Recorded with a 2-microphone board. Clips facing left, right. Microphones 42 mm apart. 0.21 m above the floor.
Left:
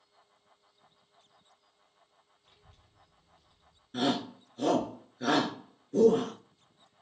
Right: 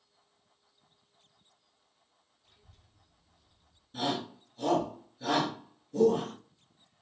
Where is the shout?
45° left (ahead or behind), 3.5 m.